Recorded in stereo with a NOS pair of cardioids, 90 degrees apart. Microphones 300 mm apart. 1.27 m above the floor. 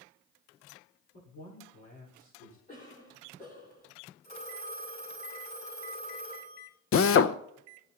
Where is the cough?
30° left, 3 m.